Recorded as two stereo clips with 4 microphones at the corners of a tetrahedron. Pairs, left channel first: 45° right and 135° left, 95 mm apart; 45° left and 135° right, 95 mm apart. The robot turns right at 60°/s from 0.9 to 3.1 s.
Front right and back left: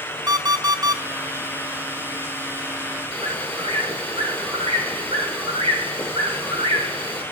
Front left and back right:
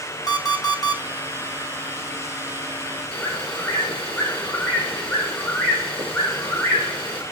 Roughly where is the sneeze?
No sneeze in this recording.